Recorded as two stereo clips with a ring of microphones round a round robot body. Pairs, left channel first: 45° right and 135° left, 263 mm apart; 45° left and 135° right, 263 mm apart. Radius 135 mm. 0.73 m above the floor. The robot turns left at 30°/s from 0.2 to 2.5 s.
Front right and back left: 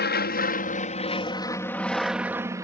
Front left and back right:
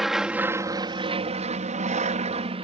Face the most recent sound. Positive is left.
turn(degrees=-165)